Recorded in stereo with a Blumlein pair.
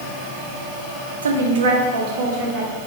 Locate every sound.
1.2 s a woman speaking: 70° right, 0.8 m; by 2.7 s 50° right, 1.9 m